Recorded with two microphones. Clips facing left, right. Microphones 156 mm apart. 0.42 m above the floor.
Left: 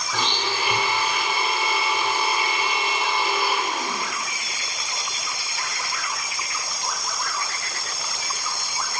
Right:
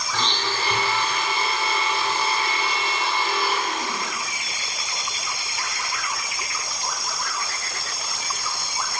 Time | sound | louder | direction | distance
0.1 | a blender | left 1 dB | 15° left (ahead or behind) | 1.1 m